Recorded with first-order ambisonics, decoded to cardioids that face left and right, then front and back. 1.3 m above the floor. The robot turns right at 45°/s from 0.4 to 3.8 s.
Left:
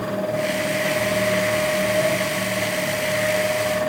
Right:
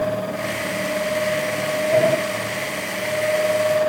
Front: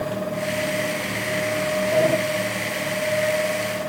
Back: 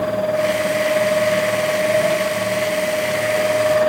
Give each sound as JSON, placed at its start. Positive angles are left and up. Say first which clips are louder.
{"t": 1.9, "sound": "a sliding door", "louder": "right 8 dB, front 1 dB", "azimuth_deg": -60, "distance_m": 3.5}